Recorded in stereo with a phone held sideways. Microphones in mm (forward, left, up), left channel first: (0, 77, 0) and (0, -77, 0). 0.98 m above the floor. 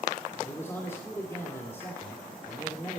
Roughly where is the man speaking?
Centre.